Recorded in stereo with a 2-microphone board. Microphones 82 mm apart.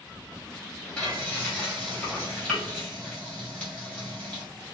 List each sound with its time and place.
1.0 s frying: 10° left (ahead or behind), 1.9 m